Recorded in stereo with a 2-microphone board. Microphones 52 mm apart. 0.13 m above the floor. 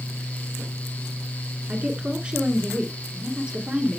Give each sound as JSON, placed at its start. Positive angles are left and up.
{"t": 1.7, "sound": "a woman speaking", "side_deg": -20, "distance_m": 1.9}